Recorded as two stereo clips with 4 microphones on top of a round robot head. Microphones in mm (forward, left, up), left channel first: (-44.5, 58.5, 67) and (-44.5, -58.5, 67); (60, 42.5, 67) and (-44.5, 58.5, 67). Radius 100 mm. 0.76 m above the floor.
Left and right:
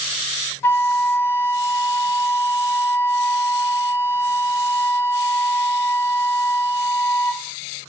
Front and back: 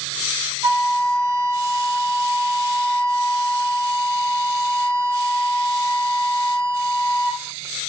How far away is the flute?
About 1.2 m.